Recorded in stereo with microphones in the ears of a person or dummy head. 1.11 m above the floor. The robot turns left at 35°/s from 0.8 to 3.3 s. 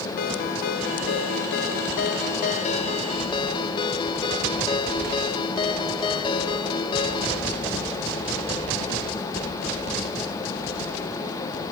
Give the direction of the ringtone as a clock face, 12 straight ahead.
8 o'clock.